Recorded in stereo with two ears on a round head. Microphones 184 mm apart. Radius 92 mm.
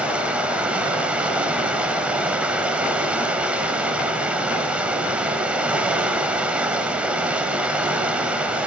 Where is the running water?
5° right (ahead or behind), 1.3 m.